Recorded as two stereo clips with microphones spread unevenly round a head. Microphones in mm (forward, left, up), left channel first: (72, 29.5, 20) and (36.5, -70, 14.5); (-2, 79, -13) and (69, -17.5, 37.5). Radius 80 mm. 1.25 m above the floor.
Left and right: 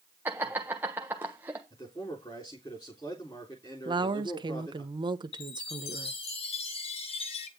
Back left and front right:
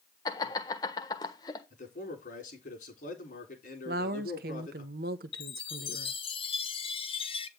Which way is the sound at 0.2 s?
175° left.